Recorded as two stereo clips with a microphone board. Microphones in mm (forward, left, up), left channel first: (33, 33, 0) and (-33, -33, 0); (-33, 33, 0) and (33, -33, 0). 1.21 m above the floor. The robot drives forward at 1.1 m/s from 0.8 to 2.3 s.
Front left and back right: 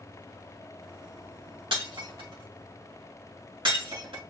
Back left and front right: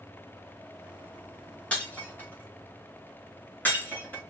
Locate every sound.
1.7 s breaking glass: 150° right, 3 m; by 4.2 s 155° right, 3.5 m